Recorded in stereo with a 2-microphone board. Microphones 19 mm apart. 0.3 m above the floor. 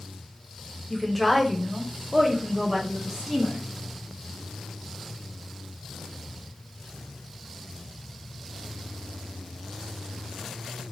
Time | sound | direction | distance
0.9 | a woman speaking | 10° left (ahead or behind) | 1.0 m